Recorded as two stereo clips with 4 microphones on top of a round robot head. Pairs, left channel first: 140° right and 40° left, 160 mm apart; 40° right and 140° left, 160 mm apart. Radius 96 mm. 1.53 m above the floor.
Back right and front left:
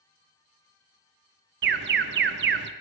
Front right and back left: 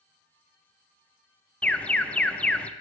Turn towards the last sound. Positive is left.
turn(degrees=40)